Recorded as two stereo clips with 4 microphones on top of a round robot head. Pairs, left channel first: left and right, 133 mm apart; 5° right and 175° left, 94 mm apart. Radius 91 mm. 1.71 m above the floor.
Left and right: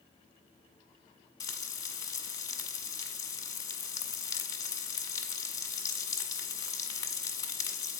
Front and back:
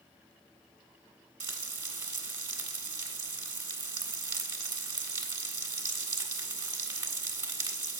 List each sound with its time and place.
1.4 s frying: 145° left, 1.6 m